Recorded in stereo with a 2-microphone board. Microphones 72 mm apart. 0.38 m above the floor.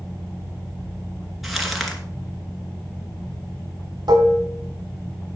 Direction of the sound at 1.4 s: Centre (ahead or behind).